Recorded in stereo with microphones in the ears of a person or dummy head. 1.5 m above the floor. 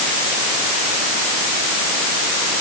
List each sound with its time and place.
Only background noise.